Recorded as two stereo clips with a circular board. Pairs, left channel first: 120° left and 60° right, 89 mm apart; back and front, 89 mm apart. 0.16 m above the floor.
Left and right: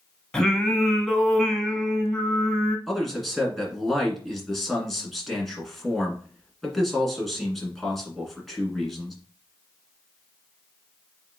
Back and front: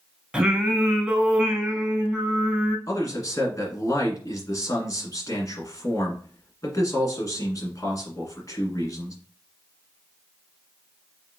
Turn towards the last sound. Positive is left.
turn(degrees=-155)